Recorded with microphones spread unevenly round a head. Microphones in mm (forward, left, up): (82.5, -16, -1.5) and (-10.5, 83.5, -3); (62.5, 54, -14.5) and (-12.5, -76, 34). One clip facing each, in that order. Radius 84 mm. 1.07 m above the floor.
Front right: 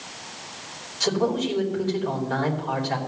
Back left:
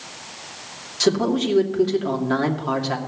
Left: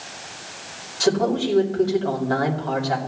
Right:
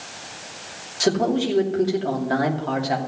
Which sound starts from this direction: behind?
A man speaking, at 1.0 s.